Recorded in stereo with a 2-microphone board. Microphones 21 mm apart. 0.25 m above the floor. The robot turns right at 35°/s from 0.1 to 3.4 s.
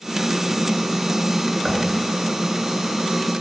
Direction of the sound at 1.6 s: 10° right (ahead or behind).